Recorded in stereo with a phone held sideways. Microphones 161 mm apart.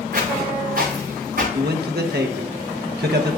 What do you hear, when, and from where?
0.1 s footsteps: 70° right (ahead or behind), 6.5 m; by 1.4 s 65° right (ahead or behind), 7 m
1.5 s a man speaking: 85° right, 1.1 m